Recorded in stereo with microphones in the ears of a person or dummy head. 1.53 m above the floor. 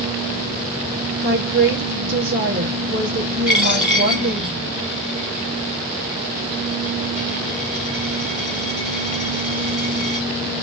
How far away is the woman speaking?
About 1.6 m.